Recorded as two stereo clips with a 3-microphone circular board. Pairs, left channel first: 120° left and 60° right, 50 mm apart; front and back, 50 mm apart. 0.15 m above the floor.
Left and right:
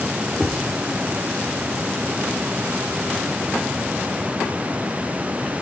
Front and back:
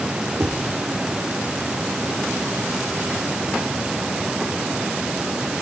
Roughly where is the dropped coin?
No dropped coin in this recording.